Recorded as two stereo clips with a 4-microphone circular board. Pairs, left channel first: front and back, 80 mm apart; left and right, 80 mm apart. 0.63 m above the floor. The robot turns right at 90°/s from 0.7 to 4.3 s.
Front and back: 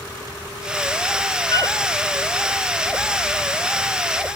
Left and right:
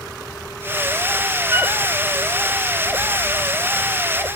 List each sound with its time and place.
1.5 s a flute: 40° right, 0.9 m; by 1.8 s 15° right, 0.9 m